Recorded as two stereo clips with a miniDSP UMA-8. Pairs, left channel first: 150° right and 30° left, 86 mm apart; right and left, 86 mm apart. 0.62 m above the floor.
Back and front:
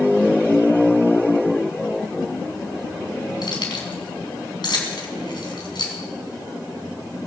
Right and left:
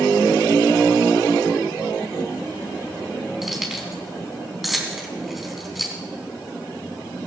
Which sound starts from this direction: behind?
Keys jangling, at 3.4 s.